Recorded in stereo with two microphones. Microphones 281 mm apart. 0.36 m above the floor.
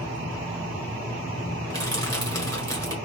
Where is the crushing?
10° left (ahead or behind), 1.5 m.